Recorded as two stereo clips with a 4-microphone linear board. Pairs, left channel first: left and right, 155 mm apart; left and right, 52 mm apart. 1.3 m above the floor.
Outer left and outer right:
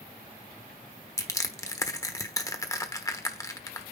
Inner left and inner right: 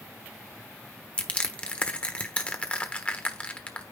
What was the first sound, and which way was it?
Crushing, 20° left (ahead or behind).